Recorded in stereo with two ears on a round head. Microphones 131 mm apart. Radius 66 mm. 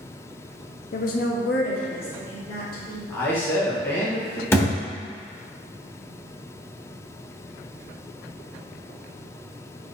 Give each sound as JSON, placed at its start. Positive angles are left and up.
{"t": 0.9, "sound": "a woman speaking", "side_deg": 60, "distance_m": 0.6}
{"t": 3.1, "sound": "a man speaking", "side_deg": 15, "distance_m": 1.4}
{"t": 4.5, "sound": "a thud", "side_deg": 20, "distance_m": 1.1}